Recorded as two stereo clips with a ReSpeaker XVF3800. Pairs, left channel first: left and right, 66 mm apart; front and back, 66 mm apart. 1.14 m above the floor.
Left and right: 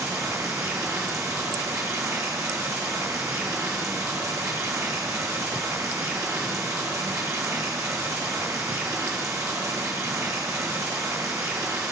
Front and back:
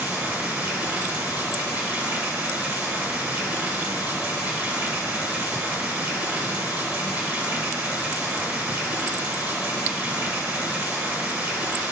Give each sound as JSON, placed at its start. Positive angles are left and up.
{"t": 0.0, "sound": "running water", "azimuth_deg": -120, "distance_m": 1.9}